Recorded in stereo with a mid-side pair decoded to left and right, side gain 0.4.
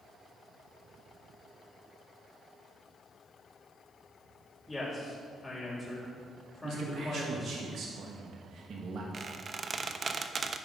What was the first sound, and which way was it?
A man speaking, 20° left.